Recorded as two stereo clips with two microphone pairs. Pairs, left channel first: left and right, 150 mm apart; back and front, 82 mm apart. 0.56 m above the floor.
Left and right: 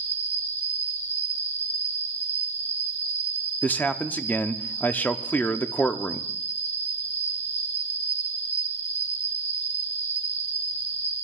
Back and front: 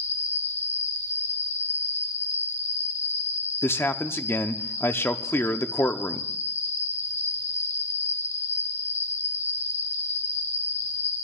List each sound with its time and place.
0.0 s an insect: 130° left, 1.0 m
3.6 s a man speaking: 155° left, 0.6 m